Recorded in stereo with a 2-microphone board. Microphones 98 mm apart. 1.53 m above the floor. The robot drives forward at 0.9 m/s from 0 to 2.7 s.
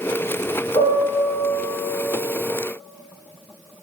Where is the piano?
80° left, 1.0 m; by 1.8 s 55° left (ahead or behind), 1.3 m.